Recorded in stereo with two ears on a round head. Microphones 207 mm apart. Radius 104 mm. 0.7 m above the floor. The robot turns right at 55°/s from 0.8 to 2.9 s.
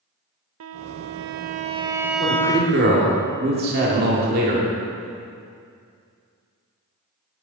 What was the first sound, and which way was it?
A violin, 80° right.